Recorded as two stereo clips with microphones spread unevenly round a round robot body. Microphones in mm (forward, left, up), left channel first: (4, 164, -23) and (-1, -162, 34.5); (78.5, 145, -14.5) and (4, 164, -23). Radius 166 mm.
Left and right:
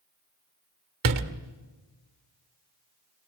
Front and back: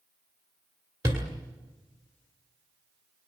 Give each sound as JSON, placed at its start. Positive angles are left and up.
{"t": 1.0, "sound": "a door slam", "azimuth_deg": -135, "distance_m": 1.6}